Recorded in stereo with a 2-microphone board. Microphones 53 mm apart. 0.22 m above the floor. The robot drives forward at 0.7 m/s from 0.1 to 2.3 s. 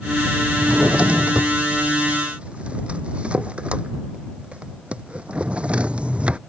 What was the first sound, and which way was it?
A drawer, 25° right (ahead or behind).